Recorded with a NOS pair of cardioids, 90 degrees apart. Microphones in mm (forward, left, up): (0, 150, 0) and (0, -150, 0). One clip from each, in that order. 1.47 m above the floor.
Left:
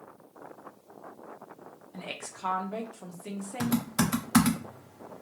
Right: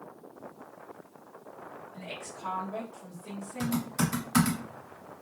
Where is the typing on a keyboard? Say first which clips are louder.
Left 2 dB; 35° left, 0.8 m.